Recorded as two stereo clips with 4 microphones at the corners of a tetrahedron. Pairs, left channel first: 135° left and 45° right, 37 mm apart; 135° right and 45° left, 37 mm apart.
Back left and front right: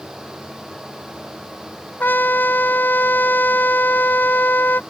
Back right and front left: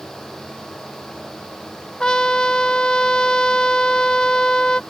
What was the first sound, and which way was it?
A trumpet, 155° left.